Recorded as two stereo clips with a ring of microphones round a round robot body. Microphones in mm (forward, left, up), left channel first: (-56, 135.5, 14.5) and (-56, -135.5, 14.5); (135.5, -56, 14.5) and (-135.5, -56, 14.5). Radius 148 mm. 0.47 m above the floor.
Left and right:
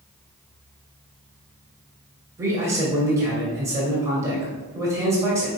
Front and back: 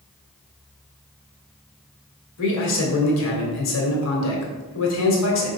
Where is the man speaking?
10° right, 2.0 m.